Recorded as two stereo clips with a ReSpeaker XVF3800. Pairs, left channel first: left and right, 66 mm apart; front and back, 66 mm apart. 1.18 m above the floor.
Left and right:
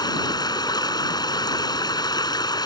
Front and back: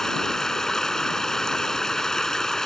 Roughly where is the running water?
Left.